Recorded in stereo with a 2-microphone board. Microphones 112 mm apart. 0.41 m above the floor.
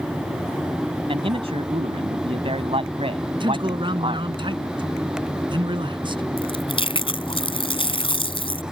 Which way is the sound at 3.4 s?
45° right (ahead or behind).